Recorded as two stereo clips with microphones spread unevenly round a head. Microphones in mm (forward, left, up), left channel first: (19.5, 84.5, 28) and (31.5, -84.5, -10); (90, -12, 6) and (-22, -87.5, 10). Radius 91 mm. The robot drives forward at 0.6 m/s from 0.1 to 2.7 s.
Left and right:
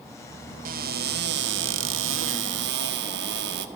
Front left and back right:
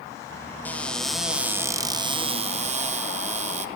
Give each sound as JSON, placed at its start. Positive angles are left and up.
{"t": 0.7, "sound": "a cupboard door", "azimuth_deg": -45, "distance_m": 1.2}